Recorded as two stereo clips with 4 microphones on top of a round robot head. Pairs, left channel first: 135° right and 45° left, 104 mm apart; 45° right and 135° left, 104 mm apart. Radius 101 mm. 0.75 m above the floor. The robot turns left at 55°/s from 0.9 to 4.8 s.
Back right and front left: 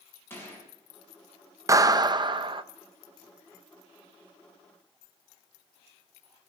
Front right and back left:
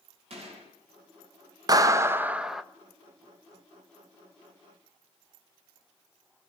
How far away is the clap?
About 1.1 m.